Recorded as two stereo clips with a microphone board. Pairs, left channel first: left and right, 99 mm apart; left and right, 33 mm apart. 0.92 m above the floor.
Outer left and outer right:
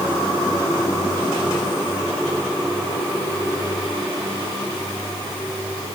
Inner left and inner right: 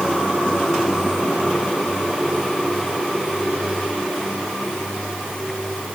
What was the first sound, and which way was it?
Only background noise.